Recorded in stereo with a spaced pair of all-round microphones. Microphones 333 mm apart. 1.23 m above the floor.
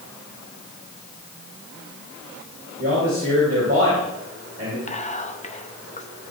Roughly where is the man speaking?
Right.